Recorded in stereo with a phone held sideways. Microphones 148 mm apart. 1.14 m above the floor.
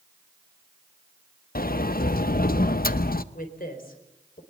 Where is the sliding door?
80° left, 0.7 m.